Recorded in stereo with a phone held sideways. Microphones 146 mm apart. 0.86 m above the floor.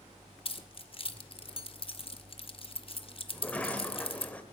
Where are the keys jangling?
40° left (ahead or behind), 0.9 m.